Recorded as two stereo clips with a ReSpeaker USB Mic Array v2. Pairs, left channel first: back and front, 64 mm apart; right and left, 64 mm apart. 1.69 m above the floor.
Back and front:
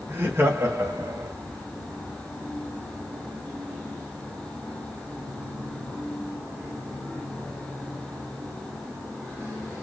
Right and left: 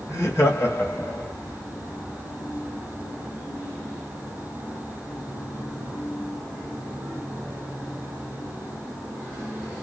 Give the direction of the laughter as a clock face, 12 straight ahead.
2 o'clock.